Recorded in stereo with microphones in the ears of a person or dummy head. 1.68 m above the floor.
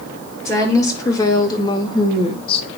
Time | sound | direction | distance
0.5 | a woman speaking | 20° left (ahead or behind) | 2.5 m